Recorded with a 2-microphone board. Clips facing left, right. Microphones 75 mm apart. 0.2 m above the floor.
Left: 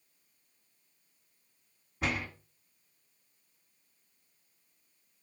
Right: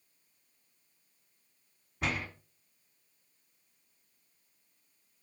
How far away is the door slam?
About 1.0 m.